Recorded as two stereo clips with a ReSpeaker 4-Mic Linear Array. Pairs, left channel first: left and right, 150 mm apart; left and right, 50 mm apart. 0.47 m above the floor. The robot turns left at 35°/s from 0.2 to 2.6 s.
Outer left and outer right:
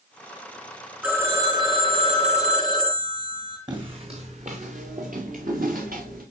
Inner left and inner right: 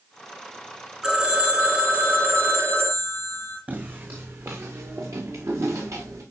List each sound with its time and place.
1.0 s a phone ringing: 10° right, 3 m; by 3.6 s 65° right, 3 m
3.7 s footsteps: 30° right (ahead or behind), 1.6 m; by 6.2 s 75° right (ahead or behind), 4 m